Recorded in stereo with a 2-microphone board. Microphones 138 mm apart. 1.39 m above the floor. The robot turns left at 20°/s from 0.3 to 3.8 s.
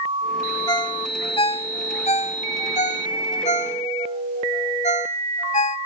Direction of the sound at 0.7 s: 30° left (ahead or behind).